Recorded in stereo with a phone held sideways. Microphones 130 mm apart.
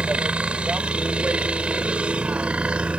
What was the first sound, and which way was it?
A helicopter, 10° right (ahead or behind).